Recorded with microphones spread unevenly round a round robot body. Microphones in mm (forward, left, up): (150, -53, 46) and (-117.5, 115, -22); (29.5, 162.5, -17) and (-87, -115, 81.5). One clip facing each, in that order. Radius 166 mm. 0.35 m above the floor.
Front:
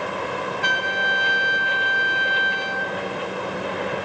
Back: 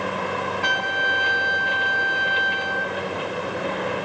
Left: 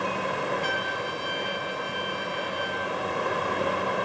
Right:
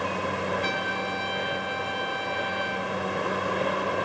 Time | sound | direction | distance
0.6 | a trumpet | 45° right | 2.5 m